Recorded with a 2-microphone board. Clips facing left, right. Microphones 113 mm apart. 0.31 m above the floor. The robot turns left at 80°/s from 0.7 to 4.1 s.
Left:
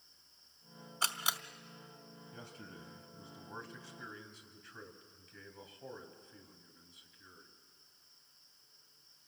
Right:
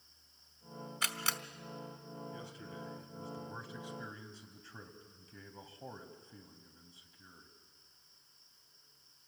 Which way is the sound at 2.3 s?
105° left.